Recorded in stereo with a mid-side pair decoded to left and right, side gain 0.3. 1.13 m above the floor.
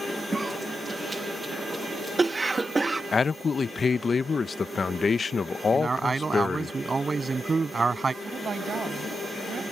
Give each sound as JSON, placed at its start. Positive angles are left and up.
{"t": 0.3, "sound": "a cough", "azimuth_deg": -35}
{"t": 3.1, "sound": "a man speaking", "azimuth_deg": 50}
{"t": 5.7, "sound": "a man speaking", "azimuth_deg": -40}
{"t": 8.2, "sound": "a woman speaking", "azimuth_deg": -60}